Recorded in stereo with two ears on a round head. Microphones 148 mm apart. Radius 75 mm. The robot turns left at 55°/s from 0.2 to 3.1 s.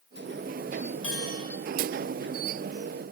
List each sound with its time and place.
1.0 s a bell: 85° left, 2.5 m; by 1.4 s 65° left (ahead or behind), 2.5 m